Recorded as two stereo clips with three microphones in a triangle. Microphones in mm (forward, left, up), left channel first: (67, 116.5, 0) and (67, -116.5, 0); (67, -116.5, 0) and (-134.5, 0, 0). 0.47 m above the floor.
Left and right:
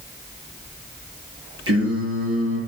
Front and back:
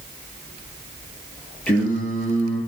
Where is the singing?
115° right, 9 m.